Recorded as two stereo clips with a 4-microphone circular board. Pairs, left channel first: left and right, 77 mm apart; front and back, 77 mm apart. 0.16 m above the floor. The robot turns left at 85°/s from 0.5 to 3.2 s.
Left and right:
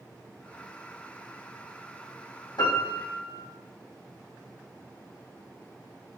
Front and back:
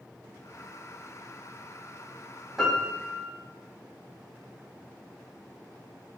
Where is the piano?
95° left, 1.9 m; by 3.4 s 45° left, 1.9 m.